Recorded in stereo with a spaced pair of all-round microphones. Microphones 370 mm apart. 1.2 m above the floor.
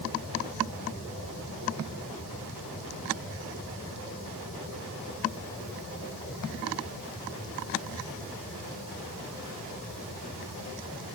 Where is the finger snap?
No finger snap in this recording.